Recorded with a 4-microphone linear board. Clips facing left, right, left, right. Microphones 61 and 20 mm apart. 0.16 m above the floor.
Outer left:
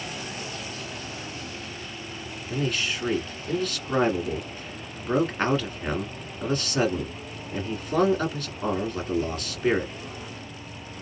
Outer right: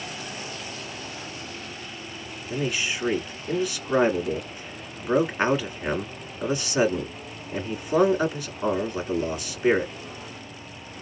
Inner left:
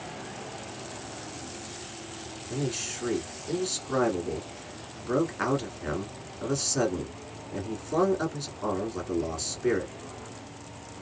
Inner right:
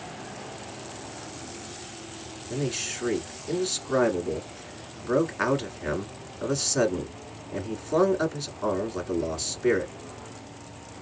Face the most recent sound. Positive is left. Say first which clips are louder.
# even, inner right 2 dB
turn(degrees=-10)  # may be behind; listen again after turning